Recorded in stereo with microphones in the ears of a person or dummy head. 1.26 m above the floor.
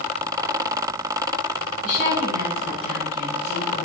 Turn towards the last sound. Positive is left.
turn(degrees=-5)  # may be behind; listen again after turning